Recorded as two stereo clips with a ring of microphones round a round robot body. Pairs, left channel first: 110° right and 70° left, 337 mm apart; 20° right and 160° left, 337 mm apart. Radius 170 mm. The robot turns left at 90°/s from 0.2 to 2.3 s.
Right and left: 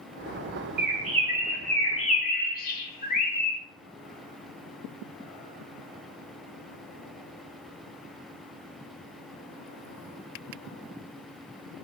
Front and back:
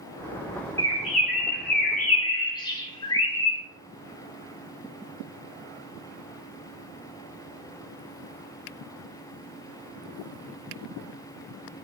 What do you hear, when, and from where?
0.8 s a bird: 50° left, 0.7 m; by 3.6 s 85° right, 0.7 m